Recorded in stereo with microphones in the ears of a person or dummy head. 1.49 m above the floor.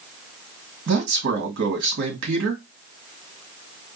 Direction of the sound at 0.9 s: 65° right (ahead or behind).